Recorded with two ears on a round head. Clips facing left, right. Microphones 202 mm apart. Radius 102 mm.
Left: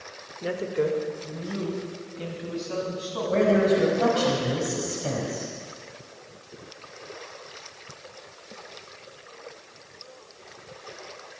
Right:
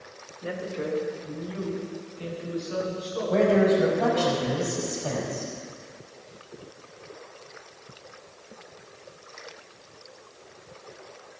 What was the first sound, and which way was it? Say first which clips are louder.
A woman speaking: left 6 dB; 65° left (ahead or behind).